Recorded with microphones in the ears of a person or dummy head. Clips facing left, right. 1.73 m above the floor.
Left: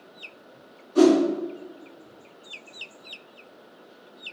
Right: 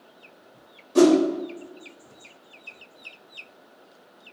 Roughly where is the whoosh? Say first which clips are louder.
Right 1 dB; right.